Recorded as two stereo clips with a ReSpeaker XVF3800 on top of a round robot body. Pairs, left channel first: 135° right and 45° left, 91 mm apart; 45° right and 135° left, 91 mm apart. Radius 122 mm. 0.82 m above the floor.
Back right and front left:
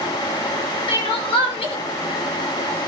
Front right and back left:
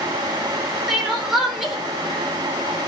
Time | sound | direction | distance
0.9 | crying | 135° right | 1.1 m